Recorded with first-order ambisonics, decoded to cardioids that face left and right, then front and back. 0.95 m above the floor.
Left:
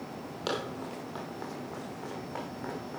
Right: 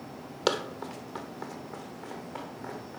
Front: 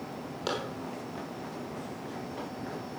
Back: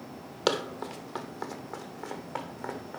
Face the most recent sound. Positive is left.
turn(degrees=165)